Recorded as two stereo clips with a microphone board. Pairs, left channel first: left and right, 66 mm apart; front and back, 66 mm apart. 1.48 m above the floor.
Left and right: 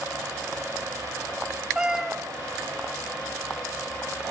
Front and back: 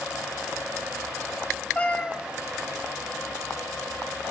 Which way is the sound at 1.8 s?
25° right.